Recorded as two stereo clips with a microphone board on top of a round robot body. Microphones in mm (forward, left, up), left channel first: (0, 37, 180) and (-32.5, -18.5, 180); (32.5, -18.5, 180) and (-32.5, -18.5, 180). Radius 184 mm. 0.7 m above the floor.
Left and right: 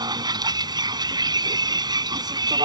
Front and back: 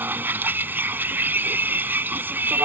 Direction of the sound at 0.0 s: 120° right.